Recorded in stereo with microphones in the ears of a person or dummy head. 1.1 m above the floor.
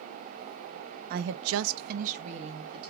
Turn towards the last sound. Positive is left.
turn(degrees=-30)  # may be behind; listen again after turning